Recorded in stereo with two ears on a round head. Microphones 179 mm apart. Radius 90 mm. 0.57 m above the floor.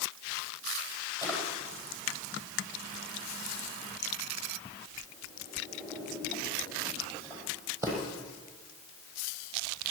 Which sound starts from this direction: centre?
A drawer, at 1.2 s.